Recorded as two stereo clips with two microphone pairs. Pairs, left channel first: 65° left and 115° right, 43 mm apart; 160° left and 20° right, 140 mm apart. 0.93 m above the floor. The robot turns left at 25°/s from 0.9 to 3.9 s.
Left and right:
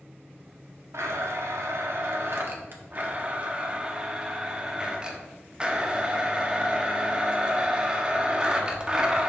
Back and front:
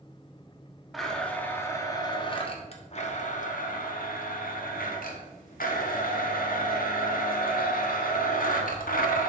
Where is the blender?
110° right, 1.3 m; by 9.3 s 175° left, 1.3 m.